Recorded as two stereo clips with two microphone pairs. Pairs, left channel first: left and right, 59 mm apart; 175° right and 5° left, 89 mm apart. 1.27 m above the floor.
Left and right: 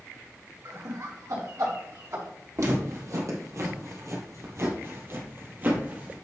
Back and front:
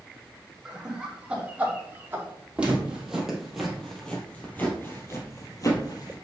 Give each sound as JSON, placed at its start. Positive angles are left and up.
{"t": 0.7, "sound": "laughter", "azimuth_deg": -80, "distance_m": 3.0}
{"t": 2.6, "sound": "footsteps", "azimuth_deg": -75, "distance_m": 3.0}